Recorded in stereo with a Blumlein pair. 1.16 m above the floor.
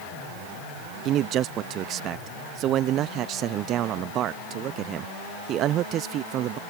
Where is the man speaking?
35° right.